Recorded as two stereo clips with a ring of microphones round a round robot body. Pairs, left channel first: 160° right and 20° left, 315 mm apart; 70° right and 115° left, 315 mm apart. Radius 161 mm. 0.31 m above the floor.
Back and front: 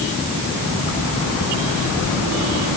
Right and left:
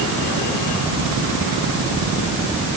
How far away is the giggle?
No giggle in this recording.